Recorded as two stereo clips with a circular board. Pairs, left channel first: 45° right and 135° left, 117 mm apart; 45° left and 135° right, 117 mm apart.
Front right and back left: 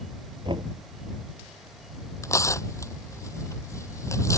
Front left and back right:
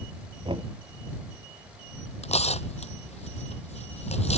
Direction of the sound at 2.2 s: 20° left.